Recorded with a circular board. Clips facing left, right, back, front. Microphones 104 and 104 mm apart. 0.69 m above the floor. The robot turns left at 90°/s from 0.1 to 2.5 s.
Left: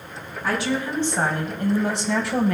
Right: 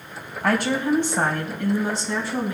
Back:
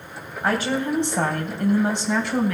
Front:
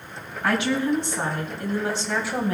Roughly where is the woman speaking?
Behind right.